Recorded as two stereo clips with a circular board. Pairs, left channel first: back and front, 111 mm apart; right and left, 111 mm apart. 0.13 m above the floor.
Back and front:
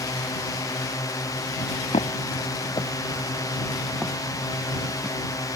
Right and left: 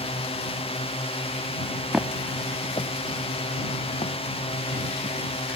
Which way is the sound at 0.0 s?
120° right.